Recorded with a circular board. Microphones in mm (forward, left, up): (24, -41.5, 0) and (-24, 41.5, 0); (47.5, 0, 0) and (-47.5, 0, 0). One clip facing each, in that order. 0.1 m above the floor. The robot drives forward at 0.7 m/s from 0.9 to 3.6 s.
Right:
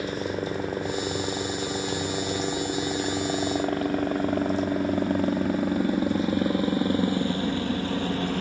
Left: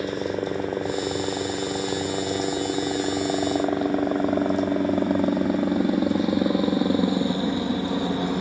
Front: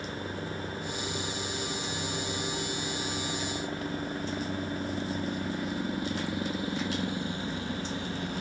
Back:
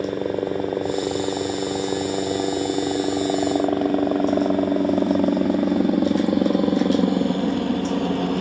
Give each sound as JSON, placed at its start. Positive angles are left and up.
{"t": 0.0, "sound": "a helicopter", "azimuth_deg": -165}